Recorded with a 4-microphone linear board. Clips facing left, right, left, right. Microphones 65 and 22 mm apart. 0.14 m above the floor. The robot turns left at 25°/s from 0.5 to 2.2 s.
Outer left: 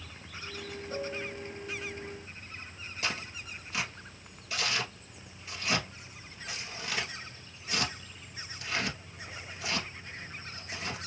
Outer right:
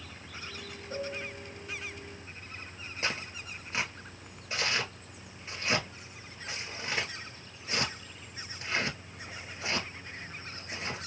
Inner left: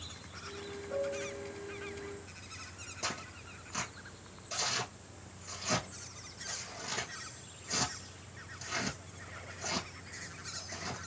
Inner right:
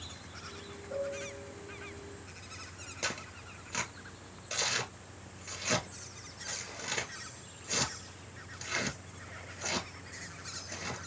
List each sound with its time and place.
0.9 s a piano: centre (ahead or behind), 1.9 m; by 1.5 s 10° right (ahead or behind), 1.9 m
3.0 s tearing paper: 30° right (ahead or behind), 1.3 m